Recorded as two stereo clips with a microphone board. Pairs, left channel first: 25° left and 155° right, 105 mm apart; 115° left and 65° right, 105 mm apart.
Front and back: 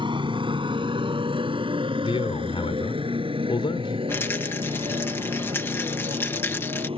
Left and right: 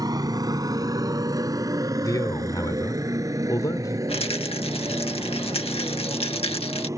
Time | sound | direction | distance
0.0 | a motorcycle | 120° right | ?
2.0 | a man speaking | 55° left | ?
4.1 | a rattle | 90° left | ?